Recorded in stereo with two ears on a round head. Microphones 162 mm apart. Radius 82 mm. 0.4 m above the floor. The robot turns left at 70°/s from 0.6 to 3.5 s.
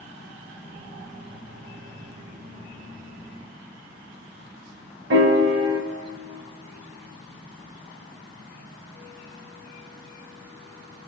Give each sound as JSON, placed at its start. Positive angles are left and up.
{"t": 5.1, "sound": "a piano", "side_deg": -60, "distance_m": 0.7}